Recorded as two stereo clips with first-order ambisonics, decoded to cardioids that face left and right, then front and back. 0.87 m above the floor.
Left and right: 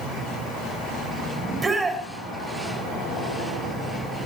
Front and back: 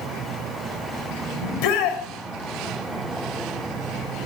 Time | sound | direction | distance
1.4 | a shout | 15° right | 4 m